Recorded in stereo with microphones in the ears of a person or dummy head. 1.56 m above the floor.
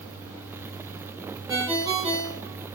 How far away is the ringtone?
About 1.9 m.